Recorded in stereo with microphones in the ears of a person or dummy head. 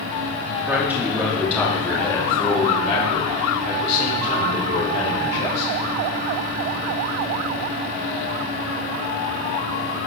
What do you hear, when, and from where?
0.7 s a man speaking: 5° right (ahead or behind), 3.5 m; by 5.7 s 75° left (ahead or behind), 6 m